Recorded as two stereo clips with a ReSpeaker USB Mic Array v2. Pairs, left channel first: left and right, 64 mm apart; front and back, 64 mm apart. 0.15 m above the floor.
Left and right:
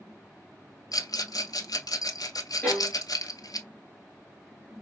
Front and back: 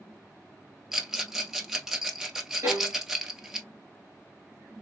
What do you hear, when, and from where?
0.9 s a rattle: 100° left, 0.9 m
2.6 s a violin: 145° left, 2.5 m